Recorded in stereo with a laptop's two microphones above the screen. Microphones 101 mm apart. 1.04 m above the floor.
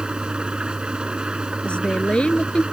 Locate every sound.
0.0 s an engine running: 10° right (ahead or behind)
1.6 s a woman speaking: 10° left (ahead or behind)